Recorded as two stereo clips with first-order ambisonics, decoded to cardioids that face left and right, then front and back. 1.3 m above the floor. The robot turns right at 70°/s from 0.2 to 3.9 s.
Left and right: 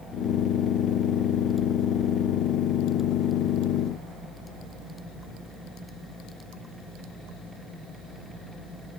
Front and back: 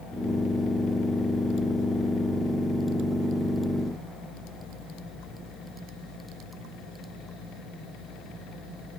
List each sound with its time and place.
Only background noise.